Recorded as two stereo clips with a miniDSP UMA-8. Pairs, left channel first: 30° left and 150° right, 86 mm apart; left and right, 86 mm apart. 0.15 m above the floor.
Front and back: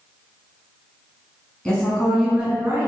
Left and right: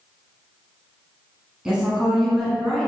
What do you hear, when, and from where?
1.6 s a woman speaking: 25° right, 1.1 m; by 2.9 s 170° left, 1.2 m